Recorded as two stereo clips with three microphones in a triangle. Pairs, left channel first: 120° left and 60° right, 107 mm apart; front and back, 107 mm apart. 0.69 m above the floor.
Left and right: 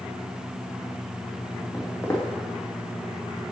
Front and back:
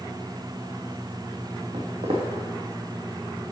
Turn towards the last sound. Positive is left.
turn(degrees=180)